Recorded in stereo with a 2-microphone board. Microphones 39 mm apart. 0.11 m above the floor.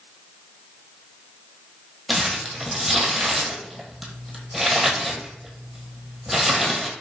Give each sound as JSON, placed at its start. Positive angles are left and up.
{"t": 2.1, "sound": "crumpling", "side_deg": 0, "distance_m": 1.3}